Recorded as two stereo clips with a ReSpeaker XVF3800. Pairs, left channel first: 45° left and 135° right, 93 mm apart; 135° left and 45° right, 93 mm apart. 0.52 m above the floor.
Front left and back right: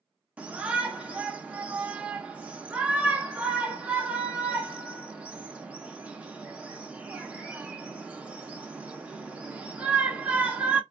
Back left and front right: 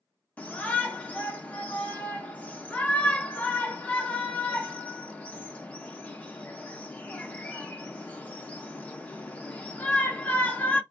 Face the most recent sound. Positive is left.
turn(degrees=180)